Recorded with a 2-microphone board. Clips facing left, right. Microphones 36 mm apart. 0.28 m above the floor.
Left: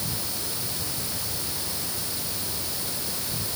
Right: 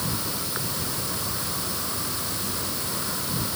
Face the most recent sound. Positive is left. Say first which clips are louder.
# right 3 dB
turn(degrees=-70)  # may be behind; listen again after turning